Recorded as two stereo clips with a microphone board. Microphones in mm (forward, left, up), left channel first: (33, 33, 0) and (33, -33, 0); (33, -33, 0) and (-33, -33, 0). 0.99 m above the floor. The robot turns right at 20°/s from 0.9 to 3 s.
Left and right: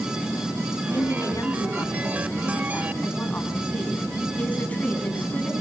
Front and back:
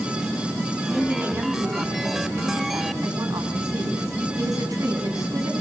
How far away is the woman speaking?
About 7.5 m.